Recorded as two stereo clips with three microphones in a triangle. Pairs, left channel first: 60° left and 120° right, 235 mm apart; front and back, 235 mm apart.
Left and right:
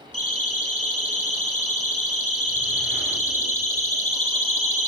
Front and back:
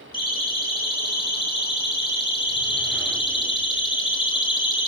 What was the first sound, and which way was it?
A siren, 70° left.